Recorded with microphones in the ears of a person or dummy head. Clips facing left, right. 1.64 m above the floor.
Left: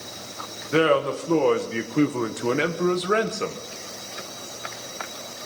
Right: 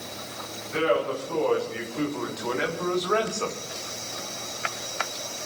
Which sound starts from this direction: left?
A man speaking, at 0.7 s.